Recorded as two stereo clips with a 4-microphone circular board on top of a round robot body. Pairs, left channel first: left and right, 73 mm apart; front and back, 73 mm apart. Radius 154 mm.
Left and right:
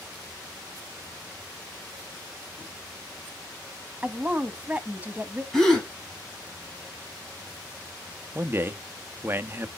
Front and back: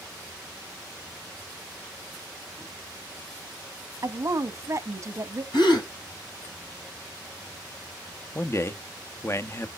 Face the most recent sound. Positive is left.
turn(degrees=-40)